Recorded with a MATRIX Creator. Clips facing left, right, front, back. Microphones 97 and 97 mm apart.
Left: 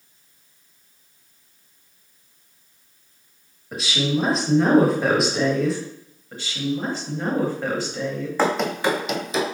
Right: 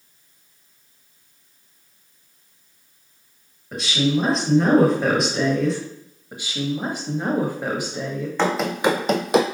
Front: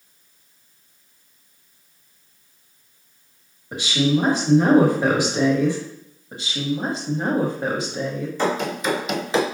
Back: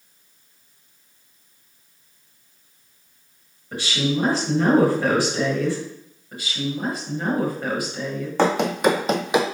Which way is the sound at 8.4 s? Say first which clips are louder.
Right 1 dB, back 5 dB; 170° left.